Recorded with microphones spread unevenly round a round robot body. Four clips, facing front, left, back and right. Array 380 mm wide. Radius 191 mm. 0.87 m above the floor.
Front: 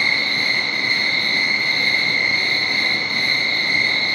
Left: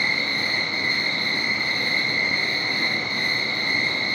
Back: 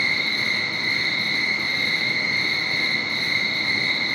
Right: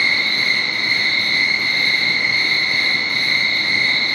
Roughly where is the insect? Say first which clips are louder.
Right 4 dB, front 3 dB; behind right.